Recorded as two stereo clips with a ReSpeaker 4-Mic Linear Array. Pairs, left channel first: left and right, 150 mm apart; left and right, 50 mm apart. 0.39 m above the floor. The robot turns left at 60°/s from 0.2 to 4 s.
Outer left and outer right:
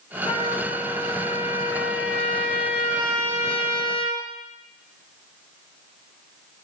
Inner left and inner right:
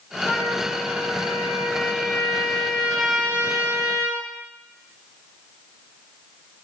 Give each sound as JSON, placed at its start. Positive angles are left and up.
{"t": 0.2, "sound": "a trumpet", "azimuth_deg": 140, "distance_m": 3.5}